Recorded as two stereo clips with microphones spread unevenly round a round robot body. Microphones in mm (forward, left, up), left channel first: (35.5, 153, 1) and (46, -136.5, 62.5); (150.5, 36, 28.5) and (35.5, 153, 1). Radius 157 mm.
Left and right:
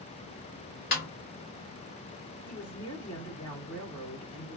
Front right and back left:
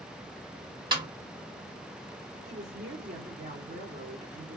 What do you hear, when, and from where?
0.9 s a snare drum: 110° left, 1.6 m
2.5 s a woman speaking: 165° left, 1.9 m